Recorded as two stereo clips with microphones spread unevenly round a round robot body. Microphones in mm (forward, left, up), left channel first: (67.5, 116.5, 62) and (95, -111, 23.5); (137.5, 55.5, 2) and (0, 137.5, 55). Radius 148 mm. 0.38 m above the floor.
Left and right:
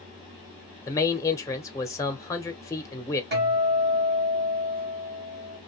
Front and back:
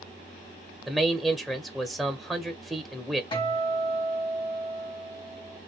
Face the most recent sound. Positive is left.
turn(degrees=-70)